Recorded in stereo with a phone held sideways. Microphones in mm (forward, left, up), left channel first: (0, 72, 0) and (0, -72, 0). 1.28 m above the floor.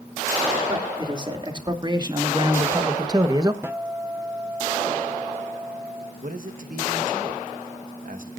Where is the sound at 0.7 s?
30° right (ahead or behind), 3 m; by 3.5 s 25° right (ahead or behind), 1.0 m.